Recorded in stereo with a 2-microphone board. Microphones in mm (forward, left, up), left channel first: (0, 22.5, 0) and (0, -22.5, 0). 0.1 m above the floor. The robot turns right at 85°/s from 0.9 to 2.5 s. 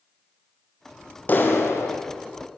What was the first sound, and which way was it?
A clap, 40° left.